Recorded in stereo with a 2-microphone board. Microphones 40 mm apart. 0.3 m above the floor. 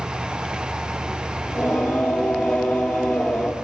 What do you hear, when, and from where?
1.4 s singing: 15° left (ahead or behind), 3 m